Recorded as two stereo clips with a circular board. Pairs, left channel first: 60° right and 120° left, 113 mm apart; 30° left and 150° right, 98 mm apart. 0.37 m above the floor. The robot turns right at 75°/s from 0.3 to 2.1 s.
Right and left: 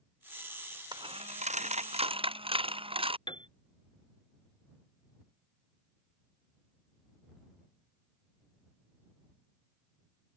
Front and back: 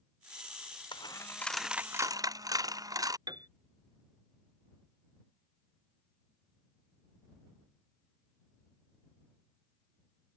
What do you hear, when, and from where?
0.9 s a dropped coin: 70° left; by 3.2 s 160° left
3.3 s a piano: 105° right